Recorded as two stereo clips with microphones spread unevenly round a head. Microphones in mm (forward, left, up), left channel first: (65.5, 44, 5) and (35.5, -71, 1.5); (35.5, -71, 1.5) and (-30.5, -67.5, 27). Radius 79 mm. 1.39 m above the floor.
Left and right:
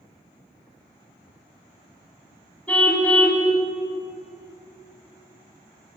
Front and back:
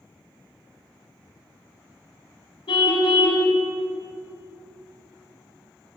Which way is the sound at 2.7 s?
Straight ahead.